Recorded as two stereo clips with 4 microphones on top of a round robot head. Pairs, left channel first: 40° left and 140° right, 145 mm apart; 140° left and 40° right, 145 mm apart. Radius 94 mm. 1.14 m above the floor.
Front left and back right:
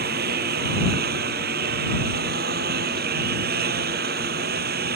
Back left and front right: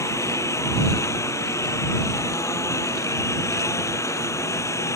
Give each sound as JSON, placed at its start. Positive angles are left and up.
{"t": 0.0, "sound": "a lawn mower", "azimuth_deg": -150}